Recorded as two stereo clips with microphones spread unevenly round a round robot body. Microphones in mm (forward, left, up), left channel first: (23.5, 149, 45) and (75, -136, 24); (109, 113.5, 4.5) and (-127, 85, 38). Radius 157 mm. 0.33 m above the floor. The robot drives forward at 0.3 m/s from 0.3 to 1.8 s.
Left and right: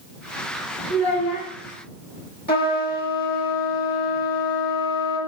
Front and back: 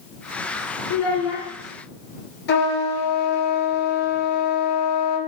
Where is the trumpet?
40° left, 1.4 m.